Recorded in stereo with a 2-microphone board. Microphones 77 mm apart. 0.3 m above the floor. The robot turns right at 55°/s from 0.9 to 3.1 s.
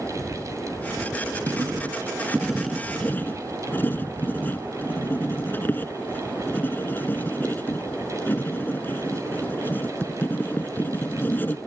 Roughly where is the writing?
Ahead right.